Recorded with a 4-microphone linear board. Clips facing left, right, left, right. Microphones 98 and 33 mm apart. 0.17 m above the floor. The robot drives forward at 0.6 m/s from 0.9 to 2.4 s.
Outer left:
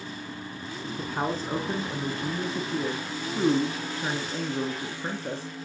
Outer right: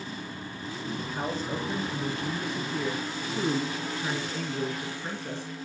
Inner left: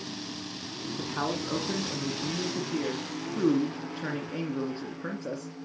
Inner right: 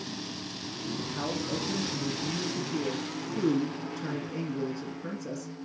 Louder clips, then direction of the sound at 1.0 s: Outer left 5 dB, inner left 3 dB; 45° left (ahead or behind).